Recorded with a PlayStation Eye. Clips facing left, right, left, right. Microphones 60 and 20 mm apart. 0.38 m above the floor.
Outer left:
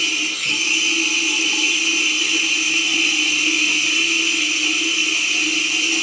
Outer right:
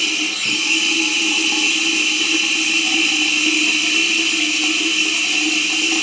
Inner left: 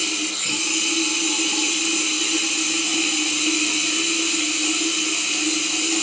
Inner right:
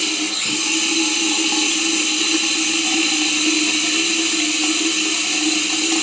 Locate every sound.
0.0 s running water: 80° right, 1.1 m